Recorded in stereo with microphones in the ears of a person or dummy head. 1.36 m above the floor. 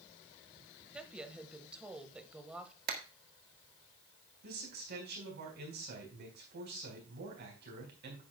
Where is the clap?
55° right (ahead or behind), 1.3 m.